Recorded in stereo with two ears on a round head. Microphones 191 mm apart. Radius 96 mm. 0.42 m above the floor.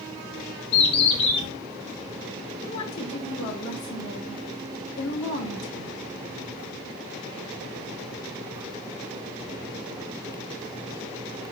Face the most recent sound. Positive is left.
turn(degrees=70)  # may be behind; listen again after turning